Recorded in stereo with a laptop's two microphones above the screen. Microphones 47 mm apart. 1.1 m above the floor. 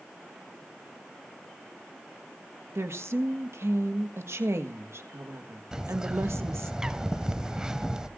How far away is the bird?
About 1.0 m.